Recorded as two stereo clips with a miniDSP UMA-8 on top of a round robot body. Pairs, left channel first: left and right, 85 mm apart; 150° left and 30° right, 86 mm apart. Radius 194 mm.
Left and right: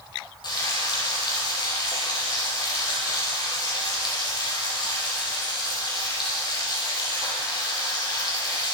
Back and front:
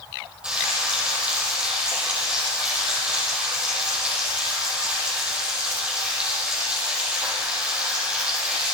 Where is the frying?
50° left, 4.5 m.